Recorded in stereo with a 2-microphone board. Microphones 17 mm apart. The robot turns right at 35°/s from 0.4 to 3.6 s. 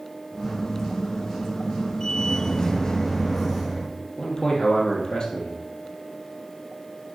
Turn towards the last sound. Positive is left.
turn(degrees=50)  # may be behind; listen again after turning